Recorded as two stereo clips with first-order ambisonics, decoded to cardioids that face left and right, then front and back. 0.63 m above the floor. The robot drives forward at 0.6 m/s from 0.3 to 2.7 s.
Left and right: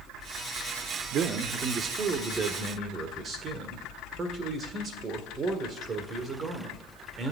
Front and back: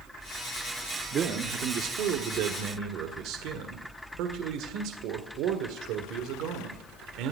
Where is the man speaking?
130° right, 0.9 m; by 7.3 s 160° right, 1.7 m.